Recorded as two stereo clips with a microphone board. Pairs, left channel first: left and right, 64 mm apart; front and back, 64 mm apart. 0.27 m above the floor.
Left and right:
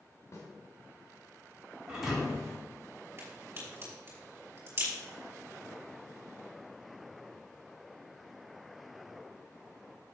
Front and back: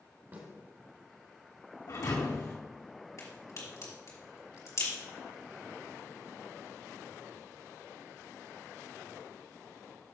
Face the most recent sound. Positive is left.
turn(degrees=-35)